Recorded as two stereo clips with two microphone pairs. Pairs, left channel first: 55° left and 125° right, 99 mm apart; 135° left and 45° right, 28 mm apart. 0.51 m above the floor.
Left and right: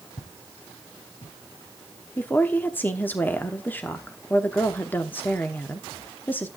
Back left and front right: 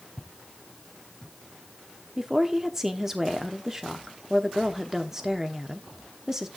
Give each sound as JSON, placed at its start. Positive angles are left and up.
{"t": 0.2, "sound": "footsteps", "azimuth_deg": 60, "distance_m": 1.6}
{"t": 2.2, "sound": "a woman speaking", "azimuth_deg": 15, "distance_m": 1.0}